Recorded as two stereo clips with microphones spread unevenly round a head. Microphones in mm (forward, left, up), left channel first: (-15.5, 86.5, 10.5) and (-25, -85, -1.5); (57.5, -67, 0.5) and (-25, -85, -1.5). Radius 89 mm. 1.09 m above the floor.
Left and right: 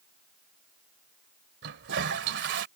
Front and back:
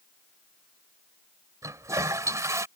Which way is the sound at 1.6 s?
115° right.